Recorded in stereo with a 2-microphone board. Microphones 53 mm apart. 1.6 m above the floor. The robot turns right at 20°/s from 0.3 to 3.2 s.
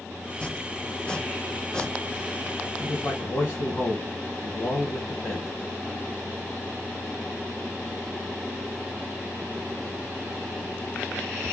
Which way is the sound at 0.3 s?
20° left (ahead or behind).